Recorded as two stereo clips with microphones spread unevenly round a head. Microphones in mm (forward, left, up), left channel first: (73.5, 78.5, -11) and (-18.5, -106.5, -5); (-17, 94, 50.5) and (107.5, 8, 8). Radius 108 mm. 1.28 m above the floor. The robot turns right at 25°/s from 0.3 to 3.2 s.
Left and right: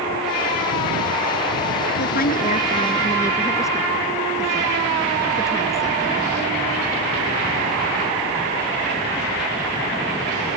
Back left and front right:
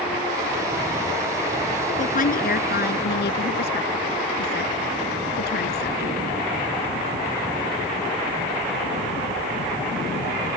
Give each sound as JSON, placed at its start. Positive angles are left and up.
{"t": 2.0, "sound": "a woman speaking", "azimuth_deg": 110}